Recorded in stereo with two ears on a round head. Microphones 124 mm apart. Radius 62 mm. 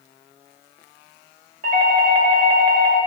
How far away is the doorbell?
About 2.5 m.